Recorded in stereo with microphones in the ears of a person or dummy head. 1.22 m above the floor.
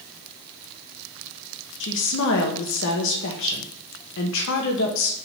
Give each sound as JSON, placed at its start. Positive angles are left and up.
{"t": 1.8, "sound": "a woman speaking", "side_deg": 70, "distance_m": 1.0}